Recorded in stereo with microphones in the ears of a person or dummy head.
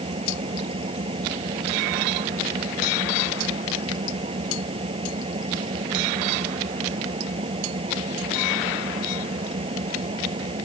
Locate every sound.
0.0 s an engine running: 30° right (ahead or behind)